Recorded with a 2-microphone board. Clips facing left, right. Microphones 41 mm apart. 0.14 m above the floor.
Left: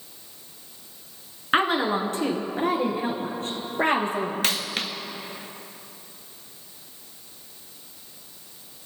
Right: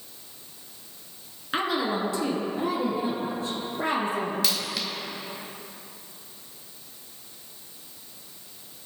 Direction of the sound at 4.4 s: 45° left (ahead or behind).